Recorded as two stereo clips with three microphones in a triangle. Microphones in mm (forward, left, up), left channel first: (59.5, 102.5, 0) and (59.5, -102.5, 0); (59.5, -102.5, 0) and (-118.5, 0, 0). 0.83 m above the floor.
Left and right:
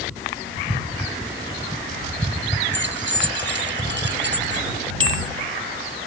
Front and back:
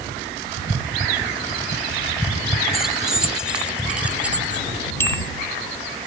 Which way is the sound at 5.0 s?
110° right.